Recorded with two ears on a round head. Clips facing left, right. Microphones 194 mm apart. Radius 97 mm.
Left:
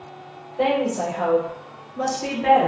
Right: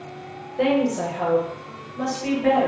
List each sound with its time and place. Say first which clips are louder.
0.6 s a woman speaking: right 1 dB; 25° right (ahead or behind), 0.7 m; by 2.7 s 55° left (ahead or behind), 1.0 m